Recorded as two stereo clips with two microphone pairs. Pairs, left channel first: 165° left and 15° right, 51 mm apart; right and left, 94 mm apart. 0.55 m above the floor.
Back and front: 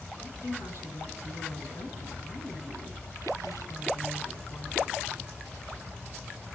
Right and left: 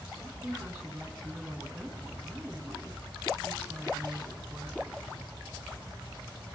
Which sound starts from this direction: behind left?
A woman speaking, at 0.2 s.